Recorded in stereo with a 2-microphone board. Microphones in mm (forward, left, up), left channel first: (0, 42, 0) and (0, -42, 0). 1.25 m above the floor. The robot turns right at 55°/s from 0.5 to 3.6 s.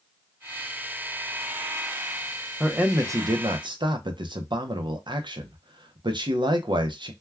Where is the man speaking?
170° right, 0.6 m; by 7.1 s 115° right, 0.6 m.